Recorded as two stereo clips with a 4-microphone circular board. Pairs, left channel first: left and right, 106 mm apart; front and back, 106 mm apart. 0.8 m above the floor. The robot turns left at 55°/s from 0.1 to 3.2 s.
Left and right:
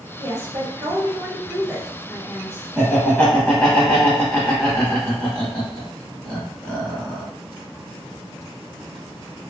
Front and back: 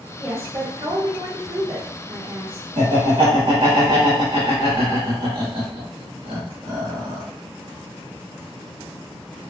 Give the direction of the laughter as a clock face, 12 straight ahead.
6 o'clock.